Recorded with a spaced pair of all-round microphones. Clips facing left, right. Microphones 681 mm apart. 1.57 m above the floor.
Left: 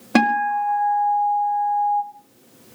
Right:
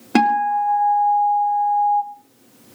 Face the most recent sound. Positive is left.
turn(degrees=10)  # may be behind; listen again after turning